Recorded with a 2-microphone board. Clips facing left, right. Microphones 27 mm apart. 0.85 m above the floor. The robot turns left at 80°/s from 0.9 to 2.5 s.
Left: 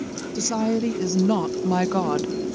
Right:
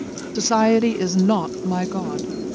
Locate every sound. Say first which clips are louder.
0.3 s a woman speaking: right 7 dB; 125° right; by 2.3 s 120° left